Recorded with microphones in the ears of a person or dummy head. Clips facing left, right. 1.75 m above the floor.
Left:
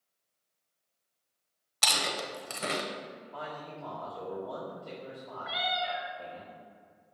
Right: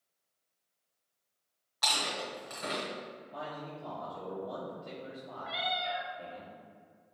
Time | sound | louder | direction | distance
1.8 | chewing | left 2 dB | 40° left (ahead or behind) | 0.8 m
3.3 | a man speaking | even | 25° right (ahead or behind) | 1.6 m
5.4 | a cat meowing | left 2 dB | 10° left (ahead or behind) | 1.9 m